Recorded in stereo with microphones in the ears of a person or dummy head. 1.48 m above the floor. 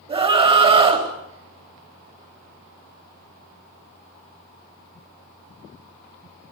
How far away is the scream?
About 4 m.